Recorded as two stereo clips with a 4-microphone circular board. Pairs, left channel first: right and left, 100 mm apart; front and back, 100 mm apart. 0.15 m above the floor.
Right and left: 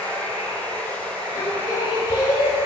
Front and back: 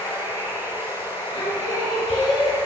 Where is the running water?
25° left, 3 m.